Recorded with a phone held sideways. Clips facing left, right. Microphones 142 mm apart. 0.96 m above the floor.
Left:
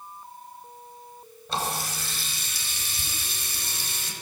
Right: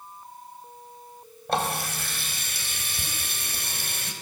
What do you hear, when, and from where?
1.5 s a running tap: 60° right (ahead or behind), 4 m